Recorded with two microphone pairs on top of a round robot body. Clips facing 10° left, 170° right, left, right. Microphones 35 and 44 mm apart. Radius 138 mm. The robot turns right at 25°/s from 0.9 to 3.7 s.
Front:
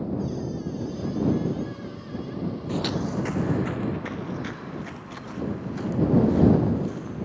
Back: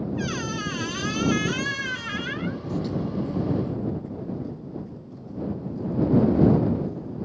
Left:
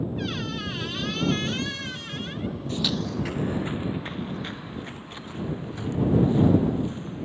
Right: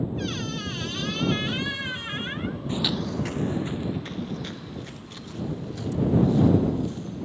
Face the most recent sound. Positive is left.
turn(degrees=25)